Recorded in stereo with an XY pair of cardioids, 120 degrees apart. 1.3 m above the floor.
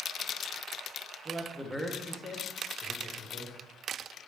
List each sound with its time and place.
1.2 s a man speaking: 25° right, 0.7 m; by 3.5 s 50° left, 1.4 m